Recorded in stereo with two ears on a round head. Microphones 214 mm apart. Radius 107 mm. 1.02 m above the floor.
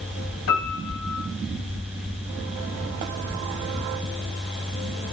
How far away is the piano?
About 4 m.